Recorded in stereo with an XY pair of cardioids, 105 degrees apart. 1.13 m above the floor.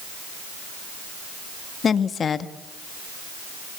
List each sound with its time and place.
1.8 s a woman speaking: 45° left, 1.7 m